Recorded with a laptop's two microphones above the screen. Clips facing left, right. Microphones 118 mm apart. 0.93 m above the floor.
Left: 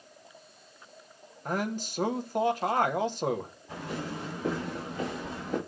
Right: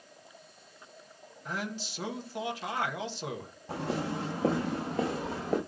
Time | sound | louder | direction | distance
1.4 | a man speaking | left 6 dB | 45° left (ahead or behind) | 1.1 m
3.7 | footsteps | right 4 dB | 75° right (ahead or behind) | 3.5 m